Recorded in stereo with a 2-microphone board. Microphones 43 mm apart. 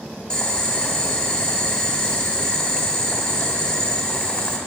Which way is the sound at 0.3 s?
15° left (ahead or behind).